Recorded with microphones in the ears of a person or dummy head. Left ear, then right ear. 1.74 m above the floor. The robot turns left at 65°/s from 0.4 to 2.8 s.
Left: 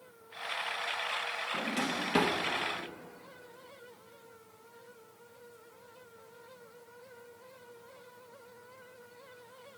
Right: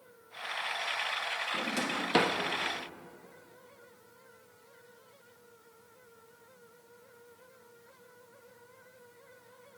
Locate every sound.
1.5 s a drawer: 5° right (ahead or behind), 1.5 m; by 2.4 s 45° right (ahead or behind), 1.5 m